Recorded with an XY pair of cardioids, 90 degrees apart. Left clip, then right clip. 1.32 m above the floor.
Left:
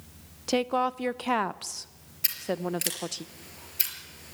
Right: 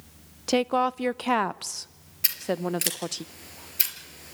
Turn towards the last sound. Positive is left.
turn(degrees=-30)